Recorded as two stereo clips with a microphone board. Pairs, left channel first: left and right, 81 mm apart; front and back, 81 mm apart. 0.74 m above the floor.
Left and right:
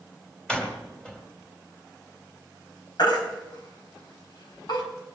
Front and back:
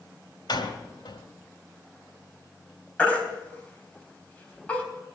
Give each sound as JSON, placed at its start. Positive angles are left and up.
{"t": 0.5, "sound": "a door slam", "azimuth_deg": 15, "distance_m": 2.5}
{"t": 3.0, "sound": "a baby crying", "azimuth_deg": 75, "distance_m": 4.0}